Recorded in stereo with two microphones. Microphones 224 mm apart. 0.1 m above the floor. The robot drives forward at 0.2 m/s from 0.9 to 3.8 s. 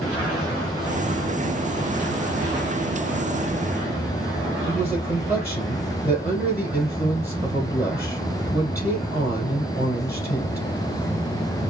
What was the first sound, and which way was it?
A man speaking, 45° left (ahead or behind).